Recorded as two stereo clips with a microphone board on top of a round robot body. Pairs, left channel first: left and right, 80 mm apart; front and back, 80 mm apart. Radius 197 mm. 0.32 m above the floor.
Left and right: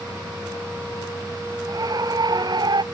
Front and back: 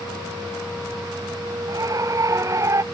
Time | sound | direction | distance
1.7 | a scream | 130° right | ?